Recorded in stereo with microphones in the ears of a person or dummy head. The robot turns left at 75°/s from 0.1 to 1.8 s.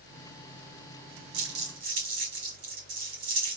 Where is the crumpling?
80° right, 1.7 m; by 3.6 s 55° right (ahead or behind), 1.7 m.